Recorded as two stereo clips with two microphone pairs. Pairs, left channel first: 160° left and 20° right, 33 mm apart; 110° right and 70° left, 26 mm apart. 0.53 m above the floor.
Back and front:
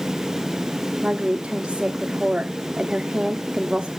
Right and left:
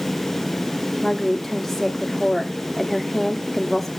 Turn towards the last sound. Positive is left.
turn(degrees=-20)